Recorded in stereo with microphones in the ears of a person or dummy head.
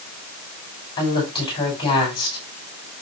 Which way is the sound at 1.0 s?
25° left (ahead or behind).